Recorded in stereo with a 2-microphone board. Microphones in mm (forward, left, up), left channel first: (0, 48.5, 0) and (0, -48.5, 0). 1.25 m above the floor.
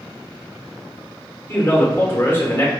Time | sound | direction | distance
1.5 | a man speaking | 20° left (ahead or behind) | 0.9 m